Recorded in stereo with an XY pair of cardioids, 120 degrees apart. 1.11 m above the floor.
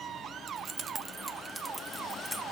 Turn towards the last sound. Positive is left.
turn(degrees=0)